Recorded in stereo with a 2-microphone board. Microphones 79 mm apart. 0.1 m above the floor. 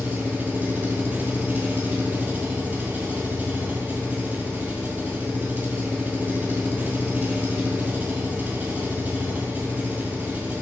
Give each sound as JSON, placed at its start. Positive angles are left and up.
{"t": 0.0, "sound": "an engine running", "side_deg": -20, "distance_m": 1.4}